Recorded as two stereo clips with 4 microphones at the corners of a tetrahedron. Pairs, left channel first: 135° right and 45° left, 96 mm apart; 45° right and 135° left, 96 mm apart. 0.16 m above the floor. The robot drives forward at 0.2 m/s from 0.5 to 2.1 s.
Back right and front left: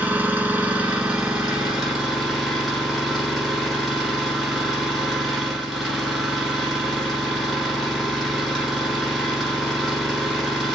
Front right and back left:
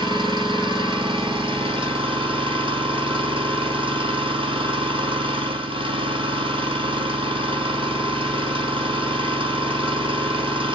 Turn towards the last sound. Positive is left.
turn(degrees=135)